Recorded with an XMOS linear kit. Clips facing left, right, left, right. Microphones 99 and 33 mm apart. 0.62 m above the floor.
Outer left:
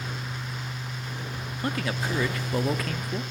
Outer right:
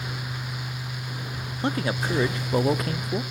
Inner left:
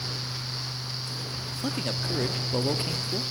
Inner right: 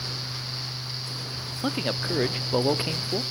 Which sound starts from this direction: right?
A man speaking, at 1.6 s.